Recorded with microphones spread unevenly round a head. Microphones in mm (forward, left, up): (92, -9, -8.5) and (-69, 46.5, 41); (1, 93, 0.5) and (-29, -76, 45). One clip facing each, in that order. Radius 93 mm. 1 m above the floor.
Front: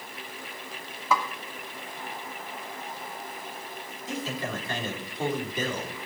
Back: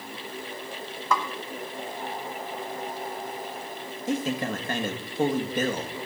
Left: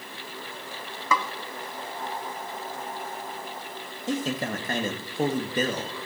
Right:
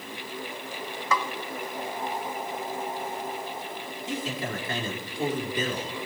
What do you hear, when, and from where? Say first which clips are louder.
1.1 s a snare drum: even, left 1 dB; 70° left, 1.2 m
4.1 s a man speaking: back 6 dB, left 5 dB; 115° left, 1.7 m